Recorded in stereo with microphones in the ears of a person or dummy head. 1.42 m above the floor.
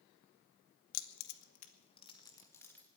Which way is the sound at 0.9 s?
70° left (ahead or behind).